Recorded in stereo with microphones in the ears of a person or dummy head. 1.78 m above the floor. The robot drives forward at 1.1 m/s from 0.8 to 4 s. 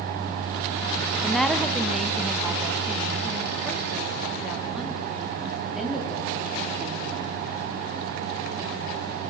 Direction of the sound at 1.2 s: 5° left (ahead or behind).